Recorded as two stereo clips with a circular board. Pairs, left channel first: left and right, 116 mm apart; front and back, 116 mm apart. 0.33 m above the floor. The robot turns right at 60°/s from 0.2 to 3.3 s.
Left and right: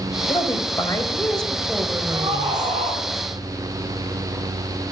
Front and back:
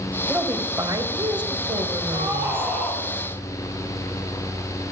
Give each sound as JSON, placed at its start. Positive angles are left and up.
{"t": 0.3, "sound": "a woman speaking", "azimuth_deg": 105, "distance_m": 1.9}
{"t": 2.1, "sound": "a scream", "azimuth_deg": -145, "distance_m": 3.0}